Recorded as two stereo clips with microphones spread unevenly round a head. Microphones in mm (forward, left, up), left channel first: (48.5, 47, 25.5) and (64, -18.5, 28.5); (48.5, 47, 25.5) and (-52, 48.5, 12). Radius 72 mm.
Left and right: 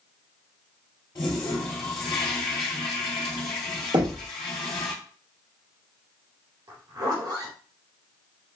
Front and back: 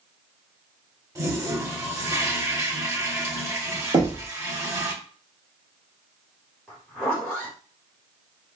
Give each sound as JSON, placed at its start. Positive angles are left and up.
{"t": 1.1, "sound": "a toilet flushing", "azimuth_deg": 120, "distance_m": 1.6}
{"t": 3.9, "sound": "knocking", "azimuth_deg": -120, "distance_m": 1.0}
{"t": 6.7, "sound": "a zipper", "azimuth_deg": -90, "distance_m": 1.7}